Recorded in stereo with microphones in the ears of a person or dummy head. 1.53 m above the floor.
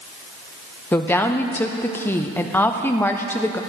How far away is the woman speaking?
About 0.5 m.